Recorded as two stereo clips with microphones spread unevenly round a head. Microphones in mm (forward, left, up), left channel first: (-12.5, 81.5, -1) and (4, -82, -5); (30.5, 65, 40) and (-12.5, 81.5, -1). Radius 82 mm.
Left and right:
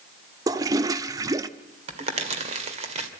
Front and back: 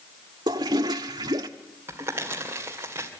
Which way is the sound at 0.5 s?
155° right.